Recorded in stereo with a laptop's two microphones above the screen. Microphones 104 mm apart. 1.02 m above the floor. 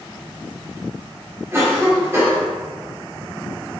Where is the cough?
25° right (ahead or behind), 2 m.